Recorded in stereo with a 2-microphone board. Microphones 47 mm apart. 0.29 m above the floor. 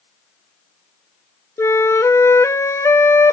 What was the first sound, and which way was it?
A flute, 80° left.